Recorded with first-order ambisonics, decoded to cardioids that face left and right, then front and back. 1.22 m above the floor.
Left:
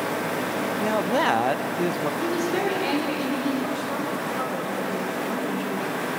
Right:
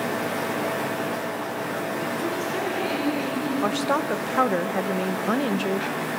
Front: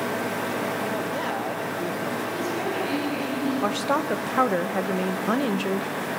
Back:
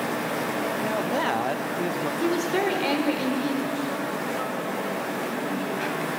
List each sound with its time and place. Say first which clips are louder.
0.8 s a man speaking: left 5 dB, back 2 dB; 105° left, 1.0 m
2.2 s a woman speaking: left 2 dB, back 3 dB; 165° left, 5 m
3.6 s a woman speaking: right 4 dB, front 4 dB; 40° right, 1.0 m